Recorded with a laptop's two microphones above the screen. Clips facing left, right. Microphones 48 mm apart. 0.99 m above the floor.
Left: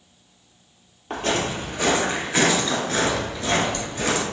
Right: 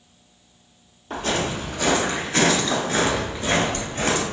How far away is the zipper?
I don't hear a zipper.